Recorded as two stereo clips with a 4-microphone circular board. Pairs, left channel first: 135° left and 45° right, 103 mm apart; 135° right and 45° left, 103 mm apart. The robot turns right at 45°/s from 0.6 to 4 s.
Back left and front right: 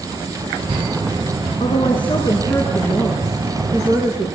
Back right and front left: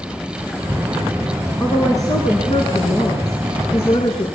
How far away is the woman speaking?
About 4.5 m.